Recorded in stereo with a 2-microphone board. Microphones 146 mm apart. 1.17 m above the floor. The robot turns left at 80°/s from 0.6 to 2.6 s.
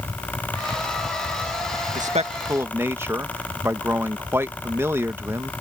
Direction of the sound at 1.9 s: 110° right.